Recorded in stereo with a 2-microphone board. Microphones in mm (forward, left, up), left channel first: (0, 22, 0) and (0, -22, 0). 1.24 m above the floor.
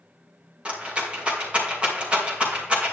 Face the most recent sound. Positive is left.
turn(degrees=-25)  # may be behind; listen again after turning